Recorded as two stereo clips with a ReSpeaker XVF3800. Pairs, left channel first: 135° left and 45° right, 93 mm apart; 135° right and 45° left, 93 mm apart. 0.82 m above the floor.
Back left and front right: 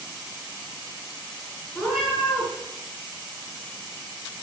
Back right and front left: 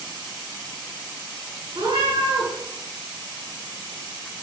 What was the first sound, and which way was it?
A cat meowing, 50° left.